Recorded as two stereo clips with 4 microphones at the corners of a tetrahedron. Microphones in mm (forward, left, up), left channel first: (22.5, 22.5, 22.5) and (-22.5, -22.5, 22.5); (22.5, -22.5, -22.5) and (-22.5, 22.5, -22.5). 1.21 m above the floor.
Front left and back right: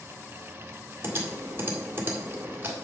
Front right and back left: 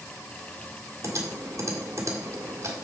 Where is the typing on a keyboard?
170° left, 1.7 m.